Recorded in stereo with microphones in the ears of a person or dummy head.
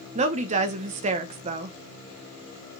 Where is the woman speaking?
35° right (ahead or behind), 0.8 m.